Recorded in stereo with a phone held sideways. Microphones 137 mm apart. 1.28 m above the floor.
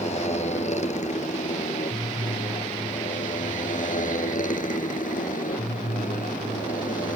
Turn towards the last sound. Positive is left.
turn(degrees=85)